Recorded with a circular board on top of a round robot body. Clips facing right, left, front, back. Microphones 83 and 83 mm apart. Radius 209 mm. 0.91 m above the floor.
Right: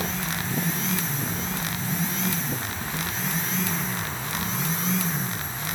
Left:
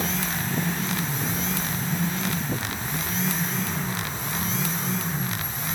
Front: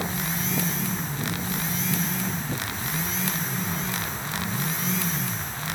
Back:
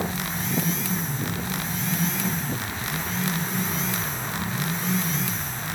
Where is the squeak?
I don't hear a squeak.